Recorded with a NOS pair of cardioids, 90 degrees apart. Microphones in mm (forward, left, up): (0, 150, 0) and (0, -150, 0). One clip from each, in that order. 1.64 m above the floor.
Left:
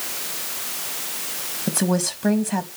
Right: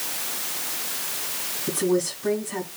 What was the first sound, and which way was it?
A woman speaking, 65° left.